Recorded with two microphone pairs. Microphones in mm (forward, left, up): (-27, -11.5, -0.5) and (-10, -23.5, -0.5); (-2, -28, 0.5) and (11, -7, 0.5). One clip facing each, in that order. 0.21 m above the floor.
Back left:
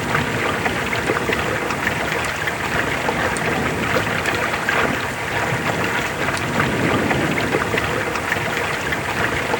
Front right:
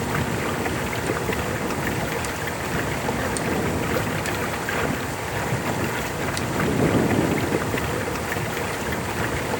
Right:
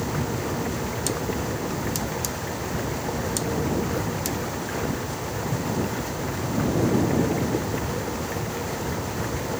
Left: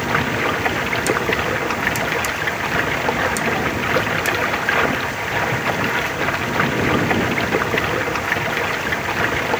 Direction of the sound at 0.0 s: 85° left.